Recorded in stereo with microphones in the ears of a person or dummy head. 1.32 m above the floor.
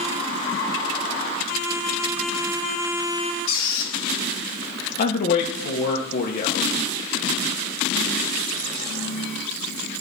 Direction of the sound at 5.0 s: 50° left (ahead or behind).